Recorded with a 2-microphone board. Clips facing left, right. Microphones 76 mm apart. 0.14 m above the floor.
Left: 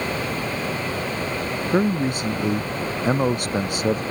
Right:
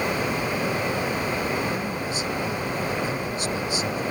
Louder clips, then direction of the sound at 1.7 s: Left 7 dB; 50° left (ahead or behind).